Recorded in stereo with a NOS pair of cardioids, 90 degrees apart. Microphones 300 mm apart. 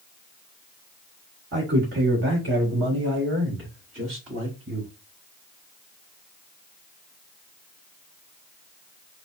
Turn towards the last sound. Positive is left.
turn(degrees=-45)